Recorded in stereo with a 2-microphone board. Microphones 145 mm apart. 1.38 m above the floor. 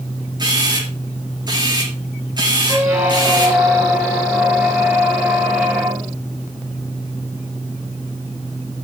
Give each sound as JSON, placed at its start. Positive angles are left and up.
{"t": 0.4, "sound": "a camera shutter", "side_deg": -30, "distance_m": 4.5}
{"t": 2.7, "sound": "a squeak", "side_deg": -5, "distance_m": 6.0}